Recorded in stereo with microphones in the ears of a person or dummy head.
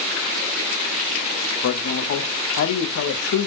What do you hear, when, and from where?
1.6 s a man speaking: 70° left (ahead or behind), 0.7 m